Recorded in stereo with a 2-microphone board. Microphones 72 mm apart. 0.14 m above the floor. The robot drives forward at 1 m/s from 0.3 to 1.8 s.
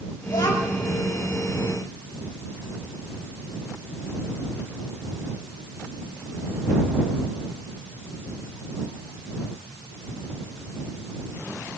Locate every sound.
0.3 s a child speaking: 80° left, 5 m